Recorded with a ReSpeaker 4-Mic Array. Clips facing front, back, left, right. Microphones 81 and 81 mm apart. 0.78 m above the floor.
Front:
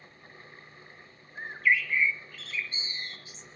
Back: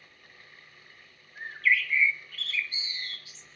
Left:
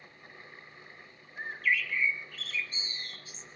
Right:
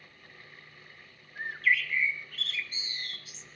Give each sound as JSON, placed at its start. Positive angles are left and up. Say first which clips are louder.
{"t": 1.4, "sound": "a bird", "louder": "even, right 2 dB", "azimuth_deg": -65, "distance_m": 1.2}